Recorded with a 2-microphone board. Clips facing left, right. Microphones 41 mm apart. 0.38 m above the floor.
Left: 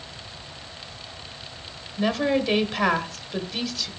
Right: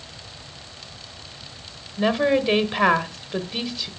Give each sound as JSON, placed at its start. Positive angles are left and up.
{"t": 2.0, "sound": "a woman speaking", "side_deg": -20, "distance_m": 1.2}